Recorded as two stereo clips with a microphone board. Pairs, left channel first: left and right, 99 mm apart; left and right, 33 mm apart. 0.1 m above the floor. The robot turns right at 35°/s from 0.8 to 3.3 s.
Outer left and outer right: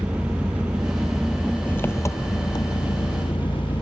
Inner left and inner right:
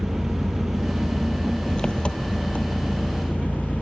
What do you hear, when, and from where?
0.0 s an engine running: 10° right, 1.4 m; by 3.8 s 80° left, 1.4 m